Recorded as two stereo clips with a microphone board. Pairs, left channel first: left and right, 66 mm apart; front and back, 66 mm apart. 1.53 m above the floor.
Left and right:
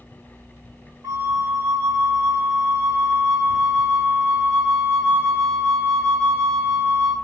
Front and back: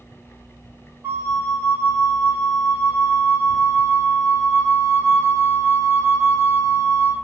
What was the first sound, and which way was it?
A flute, 130° right.